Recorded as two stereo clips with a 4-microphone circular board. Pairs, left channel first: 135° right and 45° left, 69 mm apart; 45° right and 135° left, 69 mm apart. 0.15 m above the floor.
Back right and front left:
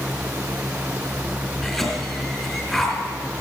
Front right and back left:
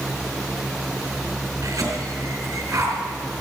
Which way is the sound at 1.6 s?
140° left.